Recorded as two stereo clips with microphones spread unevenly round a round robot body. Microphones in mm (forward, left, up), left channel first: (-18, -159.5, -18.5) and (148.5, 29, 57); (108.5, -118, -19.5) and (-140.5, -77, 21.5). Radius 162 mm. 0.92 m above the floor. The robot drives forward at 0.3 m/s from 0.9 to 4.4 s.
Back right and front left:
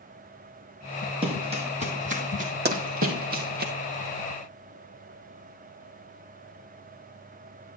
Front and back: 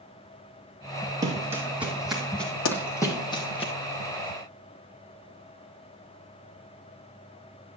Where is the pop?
10° left, 1.2 m.